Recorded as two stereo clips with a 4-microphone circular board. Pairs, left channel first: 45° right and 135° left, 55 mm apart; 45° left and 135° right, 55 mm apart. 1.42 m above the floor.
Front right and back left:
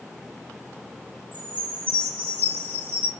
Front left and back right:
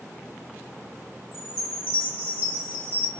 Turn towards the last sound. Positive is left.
turn(degrees=85)